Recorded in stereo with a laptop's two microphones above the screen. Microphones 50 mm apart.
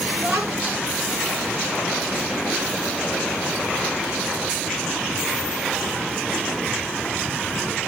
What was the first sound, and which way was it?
A child speaking, 20° right (ahead or behind).